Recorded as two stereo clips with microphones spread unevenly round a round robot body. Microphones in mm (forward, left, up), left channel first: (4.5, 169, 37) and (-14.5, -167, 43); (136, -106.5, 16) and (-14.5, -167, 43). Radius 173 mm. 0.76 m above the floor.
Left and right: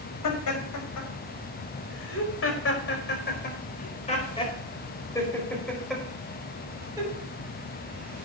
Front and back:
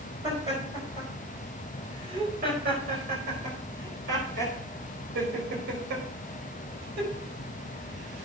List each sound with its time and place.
0.2 s laughter: 125° left, 5.5 m; by 8.3 s 165° right, 5.5 m